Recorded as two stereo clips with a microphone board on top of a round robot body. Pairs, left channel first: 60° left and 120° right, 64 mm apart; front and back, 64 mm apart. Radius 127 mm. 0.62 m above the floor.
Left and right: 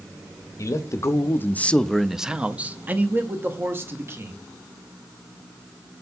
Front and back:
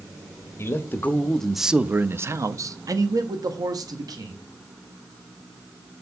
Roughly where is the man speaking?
Ahead left.